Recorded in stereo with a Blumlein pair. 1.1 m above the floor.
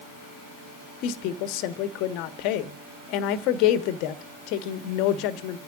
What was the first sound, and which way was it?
A woman speaking, 40° left.